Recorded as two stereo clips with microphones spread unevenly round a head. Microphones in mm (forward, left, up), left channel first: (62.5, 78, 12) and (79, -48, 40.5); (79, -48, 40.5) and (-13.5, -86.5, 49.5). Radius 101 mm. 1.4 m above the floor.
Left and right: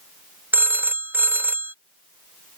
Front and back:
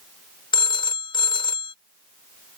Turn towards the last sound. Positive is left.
turn(degrees=-15)